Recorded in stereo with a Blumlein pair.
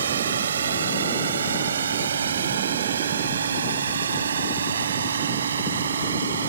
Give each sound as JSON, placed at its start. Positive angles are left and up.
{"t": 0.0, "sound": "a drone", "azimuth_deg": -65}